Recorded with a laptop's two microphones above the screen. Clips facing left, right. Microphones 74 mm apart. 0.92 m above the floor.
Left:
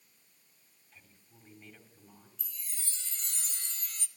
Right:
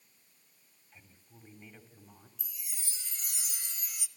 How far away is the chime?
About 1.3 m.